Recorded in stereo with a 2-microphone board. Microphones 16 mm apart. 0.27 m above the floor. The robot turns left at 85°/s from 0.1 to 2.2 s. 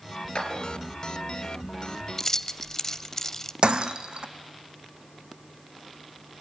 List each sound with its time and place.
0.3 s a clap: 75° left (ahead or behind), 3.5 m
2.2 s keys jangling: 30° left (ahead or behind), 0.7 m
3.6 s breaking glass: 70° right (ahead or behind), 1.2 m